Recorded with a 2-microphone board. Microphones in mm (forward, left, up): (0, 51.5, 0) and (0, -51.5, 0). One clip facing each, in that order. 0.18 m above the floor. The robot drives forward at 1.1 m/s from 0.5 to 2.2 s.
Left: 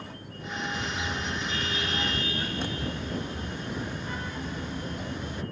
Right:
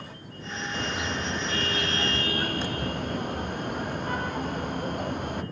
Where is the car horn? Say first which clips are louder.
Right 2 dB; 55° right (ahead or behind); by 5.4 s 60° right (ahead or behind).